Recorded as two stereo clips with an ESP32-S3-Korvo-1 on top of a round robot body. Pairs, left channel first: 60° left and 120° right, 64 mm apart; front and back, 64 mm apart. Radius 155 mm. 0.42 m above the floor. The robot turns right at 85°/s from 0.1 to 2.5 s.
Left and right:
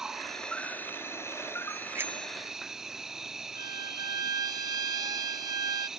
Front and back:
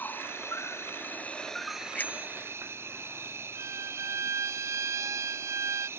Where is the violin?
135° right.